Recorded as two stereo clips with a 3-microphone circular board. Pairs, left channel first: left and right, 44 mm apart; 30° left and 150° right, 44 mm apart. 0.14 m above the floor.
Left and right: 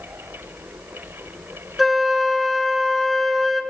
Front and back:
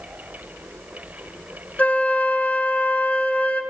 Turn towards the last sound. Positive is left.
turn(degrees=-5)